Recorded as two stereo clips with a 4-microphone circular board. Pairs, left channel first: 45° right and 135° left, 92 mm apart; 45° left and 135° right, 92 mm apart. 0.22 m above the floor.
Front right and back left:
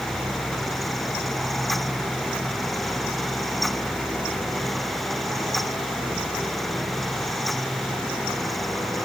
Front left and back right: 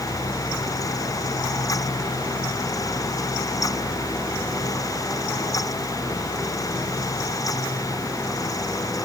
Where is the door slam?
No door slam in this recording.